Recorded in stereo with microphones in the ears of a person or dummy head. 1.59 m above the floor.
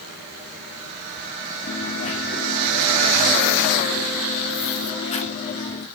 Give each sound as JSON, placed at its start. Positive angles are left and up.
{"t": 1.7, "sound": "a dropped coin", "side_deg": 35, "distance_m": 1.6}